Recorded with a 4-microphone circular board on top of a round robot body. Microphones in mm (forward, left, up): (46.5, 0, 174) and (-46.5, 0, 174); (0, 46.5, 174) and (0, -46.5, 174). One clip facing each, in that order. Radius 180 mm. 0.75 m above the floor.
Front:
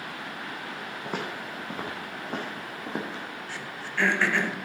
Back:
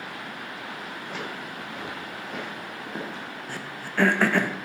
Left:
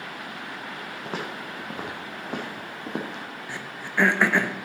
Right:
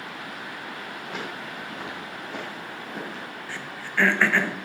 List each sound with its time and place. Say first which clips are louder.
1.1 s footsteps: front 3 dB, left 3 dB; 40° left, 2.5 m; by 3.2 s 70° left, 2 m
3.5 s throat clearing: back 2 dB, even; 160° left, 1.3 m